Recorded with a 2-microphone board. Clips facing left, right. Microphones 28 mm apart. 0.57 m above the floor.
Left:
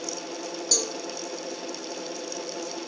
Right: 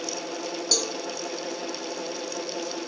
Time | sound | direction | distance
0.7 | a cowbell | 25° right (ahead or behind) | 1.2 m